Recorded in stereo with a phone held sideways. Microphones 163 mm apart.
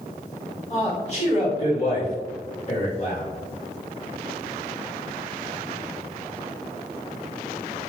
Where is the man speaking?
45° left (ahead or behind), 1.9 m.